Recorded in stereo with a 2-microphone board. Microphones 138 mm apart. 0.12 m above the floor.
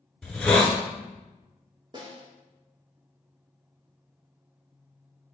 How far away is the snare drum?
About 1.2 m.